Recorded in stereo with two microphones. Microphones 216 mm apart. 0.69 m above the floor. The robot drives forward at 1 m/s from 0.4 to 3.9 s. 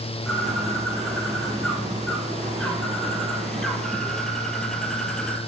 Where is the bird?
Centre (ahead or behind), 6 m; by 5.4 s 5° left (ahead or behind), 2.5 m.